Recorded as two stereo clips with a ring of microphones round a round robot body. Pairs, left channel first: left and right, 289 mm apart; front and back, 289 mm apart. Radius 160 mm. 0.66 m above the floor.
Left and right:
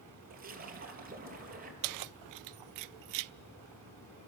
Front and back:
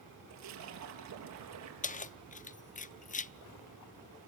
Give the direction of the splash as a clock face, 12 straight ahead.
5 o'clock.